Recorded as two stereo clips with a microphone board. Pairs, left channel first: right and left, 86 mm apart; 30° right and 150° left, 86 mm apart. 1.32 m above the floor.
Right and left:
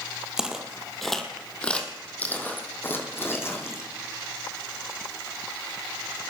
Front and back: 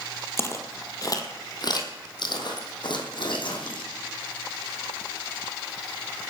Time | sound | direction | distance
0.4 | footsteps | 10° left | 1.7 m